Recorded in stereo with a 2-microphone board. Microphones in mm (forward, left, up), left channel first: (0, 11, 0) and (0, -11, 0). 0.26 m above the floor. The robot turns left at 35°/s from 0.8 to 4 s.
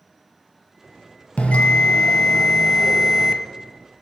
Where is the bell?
70° left, 0.7 m; by 3.4 s straight ahead, 0.7 m.